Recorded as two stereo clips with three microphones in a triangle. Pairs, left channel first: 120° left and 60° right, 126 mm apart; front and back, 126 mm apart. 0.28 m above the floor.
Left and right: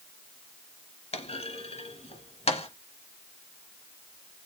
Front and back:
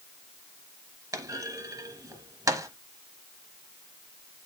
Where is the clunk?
120° left, 0.9 m.